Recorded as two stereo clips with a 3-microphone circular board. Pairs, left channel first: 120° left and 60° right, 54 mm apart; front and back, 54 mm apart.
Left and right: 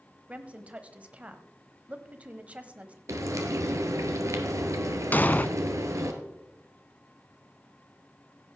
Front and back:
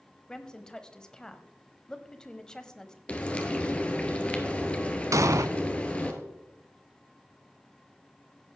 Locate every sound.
0.3 s a woman speaking: 55° right, 1.0 m
3.1 s frying: 65° right, 1.4 m
5.1 s an explosion: 175° left, 0.6 m